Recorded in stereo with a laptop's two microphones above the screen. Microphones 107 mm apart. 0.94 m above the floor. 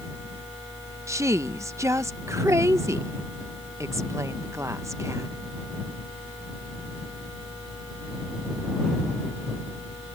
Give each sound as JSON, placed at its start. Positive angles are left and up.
{"t": 0.0, "sound": "a fan", "side_deg": 40}
{"t": 1.1, "sound": "a woman speaking", "side_deg": -25}